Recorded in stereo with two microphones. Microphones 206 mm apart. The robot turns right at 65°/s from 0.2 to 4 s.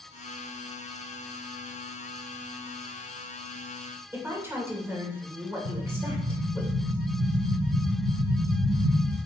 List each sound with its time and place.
4.1 s a woman speaking: 10° right (ahead or behind), 2.5 m
5.7 s an explosion: 80° right, 0.6 m